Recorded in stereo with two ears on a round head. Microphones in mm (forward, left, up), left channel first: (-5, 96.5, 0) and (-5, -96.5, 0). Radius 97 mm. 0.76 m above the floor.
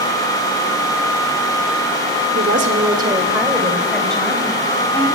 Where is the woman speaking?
50° right (ahead or behind), 1.7 m; by 5.2 s 10° left (ahead or behind), 5 m.